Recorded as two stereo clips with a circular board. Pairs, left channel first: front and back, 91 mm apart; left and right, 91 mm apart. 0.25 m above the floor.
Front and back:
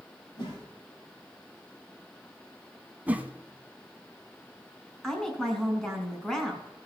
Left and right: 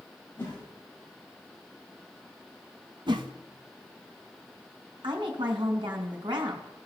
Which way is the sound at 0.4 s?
30° left.